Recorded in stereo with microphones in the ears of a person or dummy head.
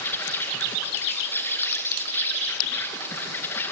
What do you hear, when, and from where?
0.0 s an insect: 10° left (ahead or behind), 3 m